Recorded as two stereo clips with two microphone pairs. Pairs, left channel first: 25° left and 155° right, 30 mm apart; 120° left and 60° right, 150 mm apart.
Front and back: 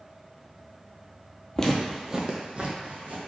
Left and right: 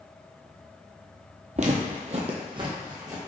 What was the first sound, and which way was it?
Footsteps, 40° right.